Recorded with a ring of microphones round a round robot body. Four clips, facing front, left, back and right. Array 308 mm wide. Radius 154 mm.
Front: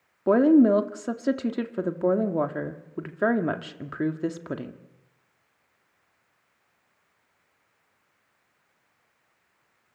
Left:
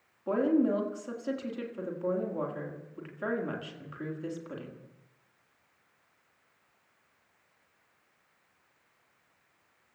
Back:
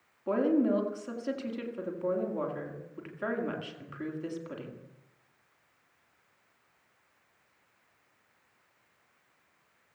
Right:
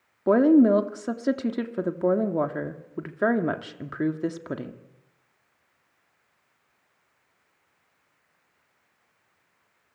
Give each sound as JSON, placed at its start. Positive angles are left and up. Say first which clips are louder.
{"t": 0.3, "sound": "a woman speaking", "louder": "right 9 dB, front 9 dB", "azimuth_deg": -50, "distance_m": 2.0}